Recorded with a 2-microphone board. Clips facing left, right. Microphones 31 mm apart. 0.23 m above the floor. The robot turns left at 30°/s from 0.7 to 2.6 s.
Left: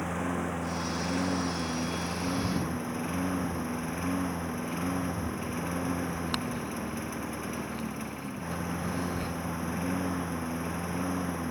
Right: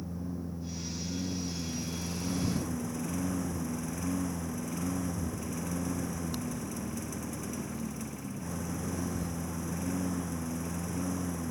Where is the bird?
60° left (ahead or behind).